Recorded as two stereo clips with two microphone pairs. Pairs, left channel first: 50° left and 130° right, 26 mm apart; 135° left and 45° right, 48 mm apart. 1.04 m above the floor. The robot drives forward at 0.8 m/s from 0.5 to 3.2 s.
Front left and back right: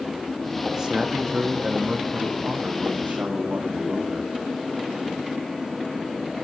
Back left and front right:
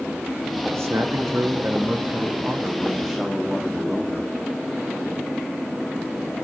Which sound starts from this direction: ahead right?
A man speaking, at 0.7 s.